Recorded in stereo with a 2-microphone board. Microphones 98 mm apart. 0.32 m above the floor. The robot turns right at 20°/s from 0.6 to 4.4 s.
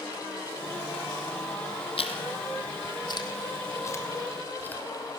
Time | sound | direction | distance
2.0 | chewing | 65° left (ahead or behind) | 2.5 m